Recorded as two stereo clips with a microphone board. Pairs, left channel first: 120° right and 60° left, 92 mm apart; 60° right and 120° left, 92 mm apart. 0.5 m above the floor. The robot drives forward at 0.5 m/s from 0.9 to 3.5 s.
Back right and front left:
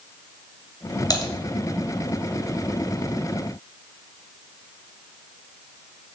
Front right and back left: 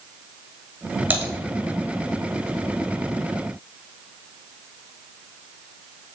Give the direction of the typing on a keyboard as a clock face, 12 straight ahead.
5 o'clock.